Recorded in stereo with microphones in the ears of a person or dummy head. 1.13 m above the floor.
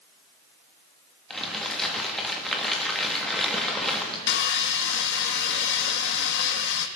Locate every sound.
1.3 s crumpling: centre (ahead or behind), 1.7 m
4.3 s sawing: 60° left (ahead or behind), 1.1 m